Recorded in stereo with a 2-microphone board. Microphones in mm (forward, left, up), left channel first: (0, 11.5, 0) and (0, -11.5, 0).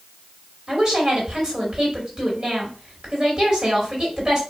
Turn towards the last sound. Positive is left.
turn(degrees=-35)  # may be behind; listen again after turning